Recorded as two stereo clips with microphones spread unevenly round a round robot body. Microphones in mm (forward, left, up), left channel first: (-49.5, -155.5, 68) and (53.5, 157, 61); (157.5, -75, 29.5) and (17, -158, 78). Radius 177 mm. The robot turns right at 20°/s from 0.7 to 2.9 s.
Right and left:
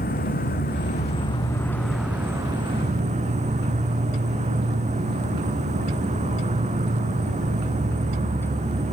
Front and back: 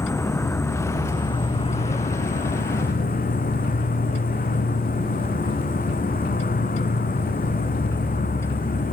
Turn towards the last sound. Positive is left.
turn(degrees=0)